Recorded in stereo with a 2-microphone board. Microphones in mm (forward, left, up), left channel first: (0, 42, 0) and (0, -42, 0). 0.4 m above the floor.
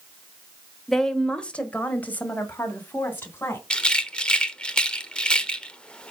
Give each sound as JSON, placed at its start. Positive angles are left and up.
{"t": 0.9, "sound": "a woman speaking", "side_deg": 5, "distance_m": 1.1}
{"t": 3.7, "sound": "a rattle", "side_deg": 10, "distance_m": 0.9}